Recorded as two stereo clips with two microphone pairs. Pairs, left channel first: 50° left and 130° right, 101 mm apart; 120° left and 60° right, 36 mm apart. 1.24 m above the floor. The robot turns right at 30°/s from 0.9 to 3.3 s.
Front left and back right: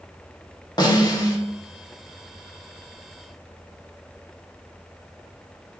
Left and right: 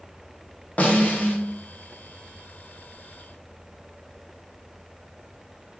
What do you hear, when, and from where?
0.8 s a snare drum: 85° left, 0.6 m; by 1.4 s 100° left, 0.6 m